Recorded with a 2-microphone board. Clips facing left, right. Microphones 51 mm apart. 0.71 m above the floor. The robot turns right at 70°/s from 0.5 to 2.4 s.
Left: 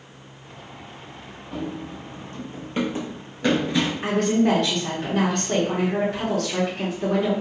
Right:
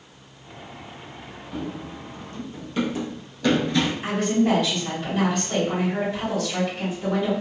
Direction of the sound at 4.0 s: 60° left (ahead or behind).